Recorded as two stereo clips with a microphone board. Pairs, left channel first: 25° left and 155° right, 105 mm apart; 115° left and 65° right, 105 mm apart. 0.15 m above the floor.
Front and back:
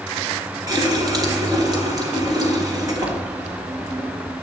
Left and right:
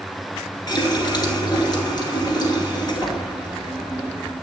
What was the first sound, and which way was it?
A running tap, 155° left.